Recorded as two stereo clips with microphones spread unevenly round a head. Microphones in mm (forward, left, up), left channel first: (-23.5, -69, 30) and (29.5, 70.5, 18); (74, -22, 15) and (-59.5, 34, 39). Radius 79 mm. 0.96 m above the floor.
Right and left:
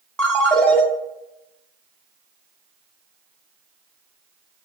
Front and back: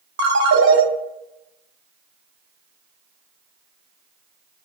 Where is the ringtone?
165° left, 0.9 m.